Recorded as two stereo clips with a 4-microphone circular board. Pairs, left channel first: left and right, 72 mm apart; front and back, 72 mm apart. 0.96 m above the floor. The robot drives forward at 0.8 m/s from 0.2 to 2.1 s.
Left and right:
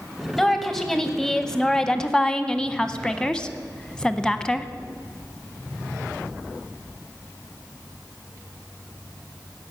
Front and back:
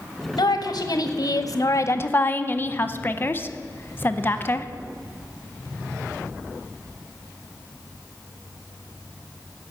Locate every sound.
0.4 s a woman speaking: 5° left, 1.8 m; by 4.7 s 20° left, 0.7 m